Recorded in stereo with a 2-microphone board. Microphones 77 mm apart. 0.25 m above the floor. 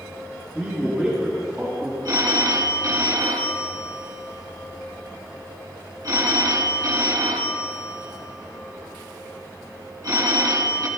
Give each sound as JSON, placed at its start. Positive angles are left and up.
{"t": 0.6, "sound": "a man speaking", "side_deg": -10, "distance_m": 2.5}
{"t": 2.0, "sound": "a phone ringing", "side_deg": -50, "distance_m": 1.2}